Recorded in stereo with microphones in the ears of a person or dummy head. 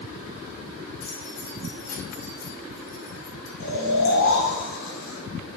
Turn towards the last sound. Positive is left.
turn(degrees=70)  # may be behind; listen again after turning